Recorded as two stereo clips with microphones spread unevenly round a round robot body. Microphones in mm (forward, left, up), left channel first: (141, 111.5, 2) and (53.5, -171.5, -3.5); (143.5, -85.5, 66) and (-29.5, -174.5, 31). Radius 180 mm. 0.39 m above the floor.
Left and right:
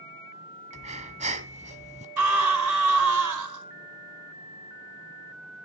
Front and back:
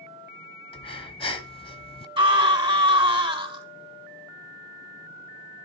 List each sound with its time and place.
0.7 s breathing: 40° right, 1.3 m
2.2 s a scream: 90° right, 4 m